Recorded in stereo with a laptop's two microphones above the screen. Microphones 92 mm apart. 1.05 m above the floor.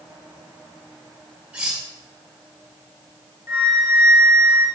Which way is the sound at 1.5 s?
15° right (ahead or behind).